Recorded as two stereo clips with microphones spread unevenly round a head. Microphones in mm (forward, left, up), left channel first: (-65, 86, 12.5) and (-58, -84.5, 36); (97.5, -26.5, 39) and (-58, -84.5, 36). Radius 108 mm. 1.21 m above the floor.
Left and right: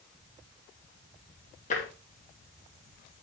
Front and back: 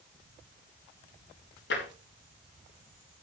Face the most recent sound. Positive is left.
turn(degrees=40)